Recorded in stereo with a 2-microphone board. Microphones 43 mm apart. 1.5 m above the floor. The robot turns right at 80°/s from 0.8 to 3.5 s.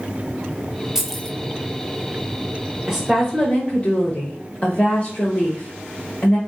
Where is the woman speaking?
20° right, 0.8 m; by 6.4 s 30° left, 0.8 m.